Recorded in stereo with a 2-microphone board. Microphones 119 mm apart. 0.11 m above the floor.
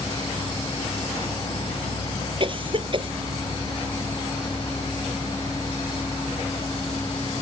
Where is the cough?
45° right (ahead or behind).